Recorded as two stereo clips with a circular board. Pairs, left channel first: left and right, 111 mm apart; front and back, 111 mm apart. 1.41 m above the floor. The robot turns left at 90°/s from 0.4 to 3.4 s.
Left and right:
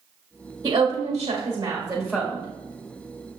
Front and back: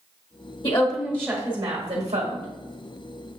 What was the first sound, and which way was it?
A woman speaking, 35° right.